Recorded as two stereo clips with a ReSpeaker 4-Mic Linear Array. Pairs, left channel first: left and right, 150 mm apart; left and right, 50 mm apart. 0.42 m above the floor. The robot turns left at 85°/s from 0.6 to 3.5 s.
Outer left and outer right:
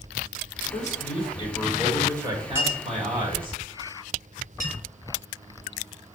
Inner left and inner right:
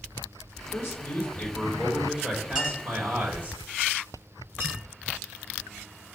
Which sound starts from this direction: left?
A man speaking, at 0.7 s.